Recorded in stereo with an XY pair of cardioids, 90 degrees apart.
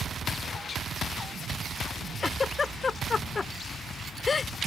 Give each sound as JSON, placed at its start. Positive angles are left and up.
{"t": 2.2, "sound": "a giggle", "azimuth_deg": 40}